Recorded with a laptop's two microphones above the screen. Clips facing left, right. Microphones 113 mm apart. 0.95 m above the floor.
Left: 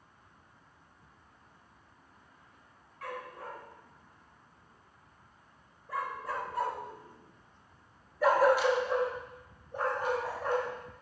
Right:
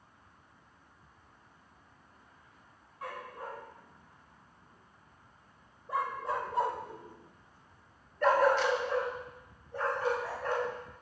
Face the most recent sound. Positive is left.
turn(degrees=20)  # may be behind; listen again after turning